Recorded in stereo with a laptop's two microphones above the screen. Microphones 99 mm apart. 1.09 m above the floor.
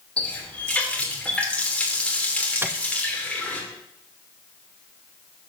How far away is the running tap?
About 2.5 m.